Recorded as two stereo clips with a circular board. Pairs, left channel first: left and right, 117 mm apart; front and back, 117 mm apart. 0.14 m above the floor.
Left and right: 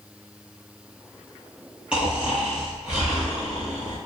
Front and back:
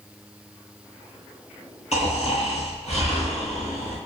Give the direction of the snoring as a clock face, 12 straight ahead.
12 o'clock.